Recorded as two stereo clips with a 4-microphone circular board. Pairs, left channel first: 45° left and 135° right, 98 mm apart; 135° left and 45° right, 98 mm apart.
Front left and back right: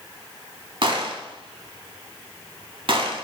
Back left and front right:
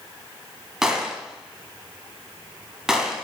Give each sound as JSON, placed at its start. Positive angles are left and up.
{"t": 0.8, "sound": "a gunshot", "azimuth_deg": -130, "distance_m": 0.6}